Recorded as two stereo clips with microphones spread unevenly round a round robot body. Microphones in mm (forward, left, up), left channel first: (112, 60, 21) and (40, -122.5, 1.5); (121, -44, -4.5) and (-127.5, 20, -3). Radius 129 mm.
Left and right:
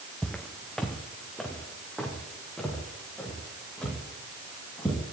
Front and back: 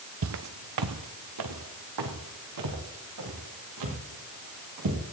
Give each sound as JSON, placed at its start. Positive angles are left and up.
{"t": 0.2, "sound": "footsteps", "azimuth_deg": 150, "distance_m": 0.7}